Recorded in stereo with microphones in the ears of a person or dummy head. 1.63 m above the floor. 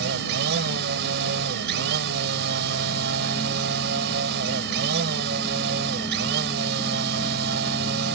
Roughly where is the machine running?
Right.